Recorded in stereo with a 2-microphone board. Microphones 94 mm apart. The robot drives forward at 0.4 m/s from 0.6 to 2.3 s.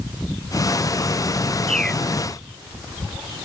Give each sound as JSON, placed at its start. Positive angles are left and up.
{"t": 1.7, "sound": "a bird", "side_deg": 10}